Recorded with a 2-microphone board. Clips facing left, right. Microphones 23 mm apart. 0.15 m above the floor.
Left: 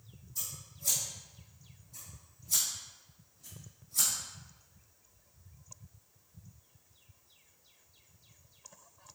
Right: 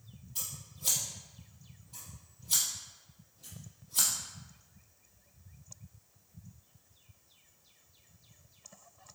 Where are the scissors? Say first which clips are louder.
Right 1 dB; 75° right (ahead or behind), 3 m.